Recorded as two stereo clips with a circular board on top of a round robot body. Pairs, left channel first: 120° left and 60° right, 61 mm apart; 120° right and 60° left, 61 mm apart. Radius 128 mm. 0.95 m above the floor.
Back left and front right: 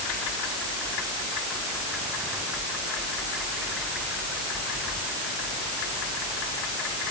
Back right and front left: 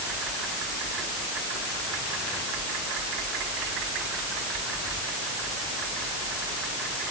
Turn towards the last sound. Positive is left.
No sound to turn to.